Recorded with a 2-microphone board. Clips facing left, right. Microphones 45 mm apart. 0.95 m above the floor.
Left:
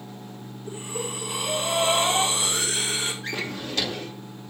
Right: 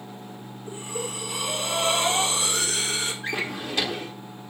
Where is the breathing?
30° left (ahead or behind), 2 m.